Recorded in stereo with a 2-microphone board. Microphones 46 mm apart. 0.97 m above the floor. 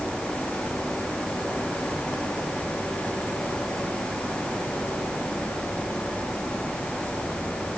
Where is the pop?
I don't hear a pop.